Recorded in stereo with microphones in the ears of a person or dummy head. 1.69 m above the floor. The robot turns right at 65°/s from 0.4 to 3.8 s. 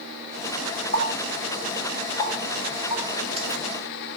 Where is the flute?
I don't hear a flute.